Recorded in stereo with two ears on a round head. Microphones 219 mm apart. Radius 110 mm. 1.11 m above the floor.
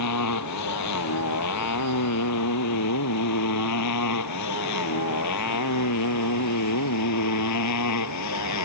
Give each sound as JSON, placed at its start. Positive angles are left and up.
{"t": 0.0, "sound": "a motorcycle", "side_deg": 85}